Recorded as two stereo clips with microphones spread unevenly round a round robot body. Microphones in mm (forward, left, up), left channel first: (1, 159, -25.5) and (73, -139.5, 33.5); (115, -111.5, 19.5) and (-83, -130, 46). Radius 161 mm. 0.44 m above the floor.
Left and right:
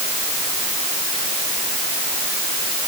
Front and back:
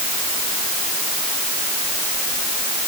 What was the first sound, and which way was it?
Only background noise.